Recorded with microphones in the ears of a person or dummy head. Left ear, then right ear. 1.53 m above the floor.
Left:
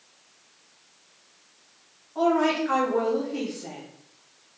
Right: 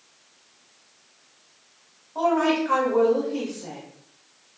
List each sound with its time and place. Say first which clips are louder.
2.1 s a woman speaking: right 1 dB; 10° right (ahead or behind), 1.5 m